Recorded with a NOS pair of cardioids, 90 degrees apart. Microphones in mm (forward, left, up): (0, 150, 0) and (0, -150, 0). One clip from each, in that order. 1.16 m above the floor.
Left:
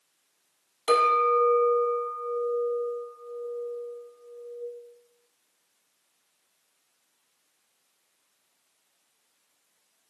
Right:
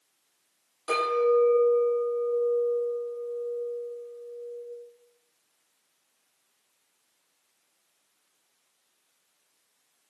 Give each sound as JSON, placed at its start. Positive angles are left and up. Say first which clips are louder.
{"t": 0.9, "sound": "a clink", "louder": "left 3 dB", "azimuth_deg": 65, "distance_m": 1.1}